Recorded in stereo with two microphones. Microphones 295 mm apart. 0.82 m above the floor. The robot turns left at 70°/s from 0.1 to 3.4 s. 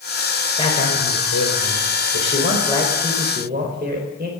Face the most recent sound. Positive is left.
turn(degrees=-35)